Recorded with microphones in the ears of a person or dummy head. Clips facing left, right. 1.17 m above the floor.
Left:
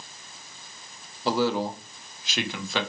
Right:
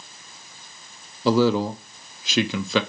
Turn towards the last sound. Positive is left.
turn(degrees=-65)  # may be behind; listen again after turning